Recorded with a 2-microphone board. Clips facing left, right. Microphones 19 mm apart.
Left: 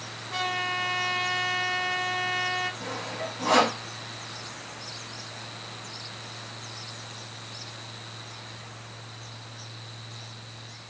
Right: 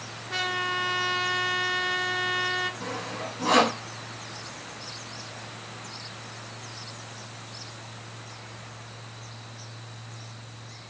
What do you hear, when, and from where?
0.3 s a trumpet: 25° right (ahead or behind), 0.8 m
2.8 s sawing: 10° right (ahead or behind), 2.5 m